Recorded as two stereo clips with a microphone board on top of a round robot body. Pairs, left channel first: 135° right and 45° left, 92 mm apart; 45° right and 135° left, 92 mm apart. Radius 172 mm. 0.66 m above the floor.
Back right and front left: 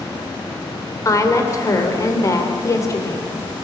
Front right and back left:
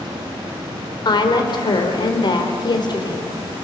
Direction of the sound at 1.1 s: 80° right.